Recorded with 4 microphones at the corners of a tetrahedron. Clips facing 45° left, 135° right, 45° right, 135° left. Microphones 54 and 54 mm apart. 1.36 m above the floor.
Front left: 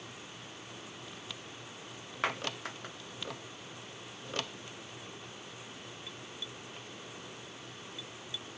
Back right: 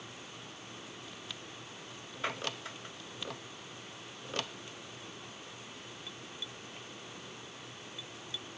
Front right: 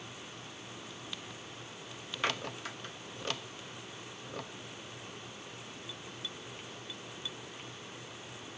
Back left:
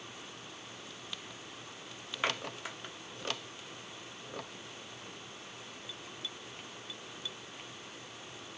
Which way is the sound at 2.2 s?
60° left.